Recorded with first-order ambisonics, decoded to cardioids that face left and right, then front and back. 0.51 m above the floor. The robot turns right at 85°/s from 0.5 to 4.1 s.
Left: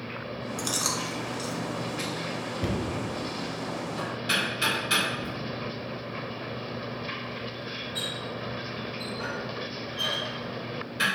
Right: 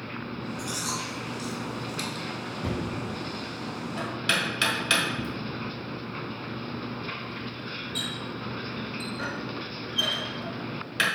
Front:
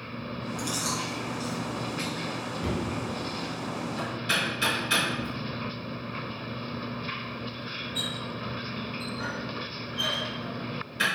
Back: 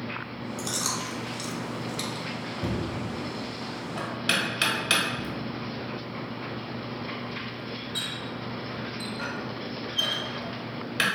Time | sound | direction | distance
0.6 | chewing | 95° left | 0.9 m
2.6 | knocking | 95° left | 1.1 m